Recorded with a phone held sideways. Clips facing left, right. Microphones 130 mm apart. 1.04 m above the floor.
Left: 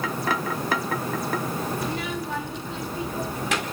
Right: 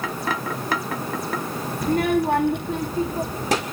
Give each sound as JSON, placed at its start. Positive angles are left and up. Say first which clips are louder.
{"t": 1.8, "sound": "a child speaking", "louder": "right 9 dB", "side_deg": -45, "distance_m": 0.7}